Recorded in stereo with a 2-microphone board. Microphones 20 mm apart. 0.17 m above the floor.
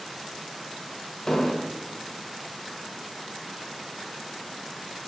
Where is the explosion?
20° left (ahead or behind), 0.8 m.